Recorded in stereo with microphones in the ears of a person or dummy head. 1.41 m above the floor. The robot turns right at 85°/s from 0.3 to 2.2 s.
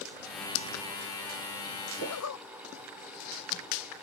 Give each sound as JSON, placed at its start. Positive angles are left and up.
{"t": 2.0, "sound": "a zipper", "side_deg": 75}